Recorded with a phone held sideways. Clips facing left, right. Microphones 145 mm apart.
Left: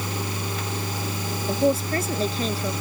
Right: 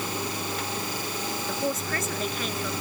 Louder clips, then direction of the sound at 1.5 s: Left 9 dB; 30° left (ahead or behind).